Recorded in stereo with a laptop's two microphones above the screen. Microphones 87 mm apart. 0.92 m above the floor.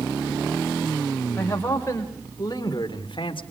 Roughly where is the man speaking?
Left.